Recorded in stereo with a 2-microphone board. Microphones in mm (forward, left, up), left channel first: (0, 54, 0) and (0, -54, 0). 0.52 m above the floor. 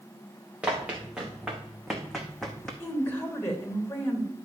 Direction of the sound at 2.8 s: 20° left (ahead or behind).